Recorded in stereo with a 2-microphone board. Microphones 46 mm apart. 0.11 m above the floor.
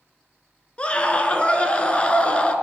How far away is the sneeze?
No sneeze in this recording.